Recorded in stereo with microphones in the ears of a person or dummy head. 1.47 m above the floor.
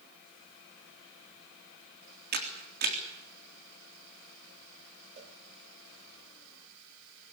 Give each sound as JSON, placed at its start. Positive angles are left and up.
{"t": 2.3, "sound": "a camera shutter", "side_deg": -50, "distance_m": 3.5}
{"t": 5.2, "sound": "a cowbell", "side_deg": -30, "distance_m": 3.0}